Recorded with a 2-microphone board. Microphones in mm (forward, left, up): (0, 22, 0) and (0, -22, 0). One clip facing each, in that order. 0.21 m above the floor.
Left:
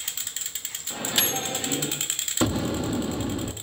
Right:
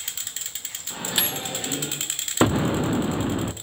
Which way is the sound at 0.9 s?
10° right (ahead or behind).